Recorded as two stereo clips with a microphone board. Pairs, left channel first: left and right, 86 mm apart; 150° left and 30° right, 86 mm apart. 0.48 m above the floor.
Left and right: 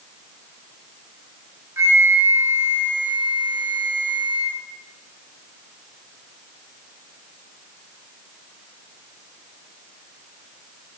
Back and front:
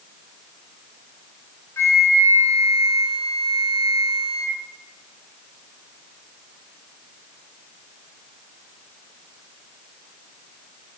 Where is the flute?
150° right, 0.8 m.